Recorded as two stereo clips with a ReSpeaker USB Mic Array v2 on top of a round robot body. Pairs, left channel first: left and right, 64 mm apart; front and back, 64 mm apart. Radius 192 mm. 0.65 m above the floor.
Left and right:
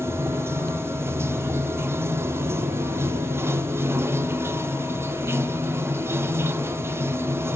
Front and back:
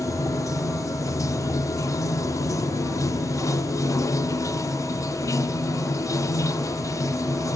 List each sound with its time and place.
0.0 s running water: 35° right, 0.7 m